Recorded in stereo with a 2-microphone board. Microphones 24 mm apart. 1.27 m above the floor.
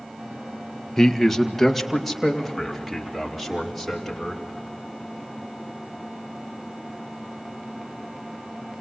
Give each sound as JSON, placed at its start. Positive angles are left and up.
{"t": 1.0, "sound": "a man speaking", "side_deg": 10, "distance_m": 1.2}